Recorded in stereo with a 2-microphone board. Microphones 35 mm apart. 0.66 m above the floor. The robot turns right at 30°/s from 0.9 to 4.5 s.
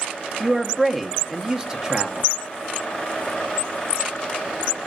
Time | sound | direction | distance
0.4 | a man speaking | 170° right | 0.7 m